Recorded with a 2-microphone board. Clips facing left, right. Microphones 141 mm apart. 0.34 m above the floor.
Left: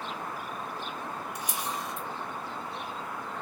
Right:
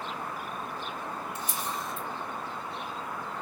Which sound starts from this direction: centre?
A camera shutter, at 1.4 s.